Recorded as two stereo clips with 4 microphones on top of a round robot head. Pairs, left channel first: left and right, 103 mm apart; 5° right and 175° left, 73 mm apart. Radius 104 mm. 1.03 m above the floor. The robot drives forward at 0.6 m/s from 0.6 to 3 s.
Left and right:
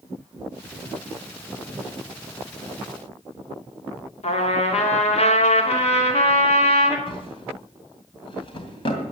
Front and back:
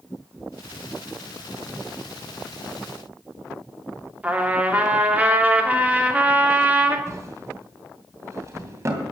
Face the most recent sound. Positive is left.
turn(degrees=130)